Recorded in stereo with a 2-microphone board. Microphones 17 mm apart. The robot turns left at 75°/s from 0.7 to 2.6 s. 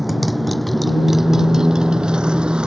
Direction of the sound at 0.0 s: 5° right (ahead or behind).